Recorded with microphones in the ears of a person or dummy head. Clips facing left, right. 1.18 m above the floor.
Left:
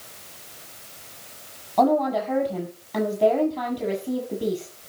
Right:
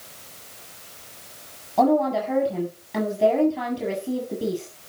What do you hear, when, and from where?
1.8 s a woman speaking: 5° right (ahead or behind), 8 m